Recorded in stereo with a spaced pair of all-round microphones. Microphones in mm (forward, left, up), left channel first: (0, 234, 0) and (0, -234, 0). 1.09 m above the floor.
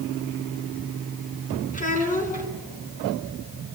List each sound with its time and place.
1.7 s a child speaking: 15° left (ahead or behind), 6 m